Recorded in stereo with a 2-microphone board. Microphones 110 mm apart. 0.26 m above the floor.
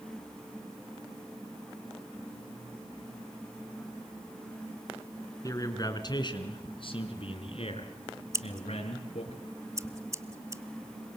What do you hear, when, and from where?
5.4 s a man speaking: 30° left (ahead or behind), 3 m; by 9.3 s 75° left (ahead or behind), 4.5 m
8.3 s scissors: 30° right (ahead or behind), 1.0 m